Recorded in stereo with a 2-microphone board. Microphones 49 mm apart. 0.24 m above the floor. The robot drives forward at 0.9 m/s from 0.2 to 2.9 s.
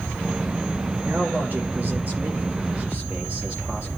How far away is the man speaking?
About 3.5 m.